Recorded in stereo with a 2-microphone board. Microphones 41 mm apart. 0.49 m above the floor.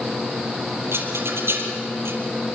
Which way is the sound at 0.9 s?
75° right (ahead or behind).